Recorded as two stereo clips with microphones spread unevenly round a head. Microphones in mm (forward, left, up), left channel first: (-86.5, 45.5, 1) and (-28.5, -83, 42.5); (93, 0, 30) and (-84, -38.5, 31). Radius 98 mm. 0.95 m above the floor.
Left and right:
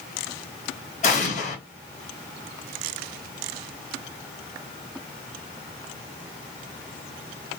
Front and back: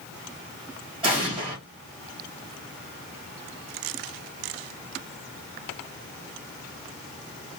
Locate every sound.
1.0 s an explosion: 130° left, 1.3 m